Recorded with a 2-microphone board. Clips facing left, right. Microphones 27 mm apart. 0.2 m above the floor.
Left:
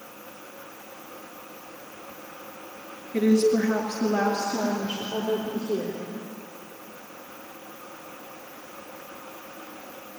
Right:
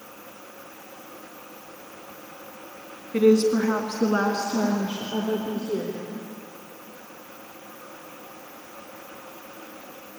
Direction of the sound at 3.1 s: 50° right (ahead or behind).